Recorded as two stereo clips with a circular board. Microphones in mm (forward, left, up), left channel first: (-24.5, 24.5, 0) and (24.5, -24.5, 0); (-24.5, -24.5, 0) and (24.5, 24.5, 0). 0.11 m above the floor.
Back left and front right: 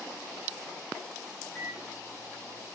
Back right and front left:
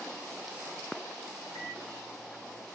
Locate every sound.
1.6 s a microwave: 175° left, 8 m